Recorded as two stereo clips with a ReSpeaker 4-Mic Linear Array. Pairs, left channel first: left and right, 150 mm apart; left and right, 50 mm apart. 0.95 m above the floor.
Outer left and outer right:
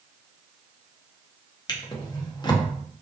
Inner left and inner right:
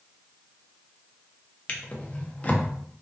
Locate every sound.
1.7 s a drawer: 30° left (ahead or behind), 0.5 m